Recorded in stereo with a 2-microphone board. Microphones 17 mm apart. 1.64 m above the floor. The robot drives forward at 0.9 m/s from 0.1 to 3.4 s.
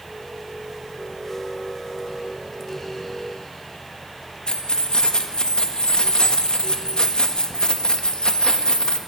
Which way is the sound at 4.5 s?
55° left (ahead or behind).